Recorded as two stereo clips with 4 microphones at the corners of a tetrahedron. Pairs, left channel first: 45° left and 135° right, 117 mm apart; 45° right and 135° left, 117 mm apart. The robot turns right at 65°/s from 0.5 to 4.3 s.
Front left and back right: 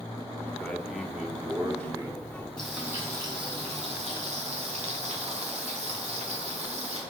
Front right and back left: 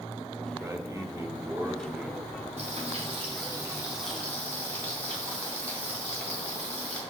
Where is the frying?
125° left, 3 m; by 7.0 s 120° right, 3 m.